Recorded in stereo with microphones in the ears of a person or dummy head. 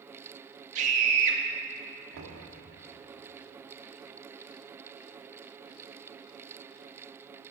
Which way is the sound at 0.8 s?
45° right (ahead or behind).